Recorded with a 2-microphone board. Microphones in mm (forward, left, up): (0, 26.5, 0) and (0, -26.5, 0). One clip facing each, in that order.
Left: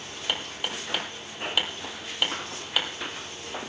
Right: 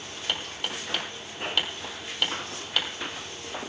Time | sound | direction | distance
0.3 | hammering | 10° left (ahead or behind) | 3 m